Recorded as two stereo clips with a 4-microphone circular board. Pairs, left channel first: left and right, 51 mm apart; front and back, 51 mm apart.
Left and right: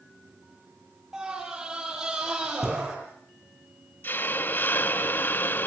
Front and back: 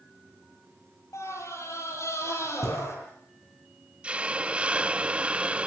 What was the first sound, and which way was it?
A scream, 15° right.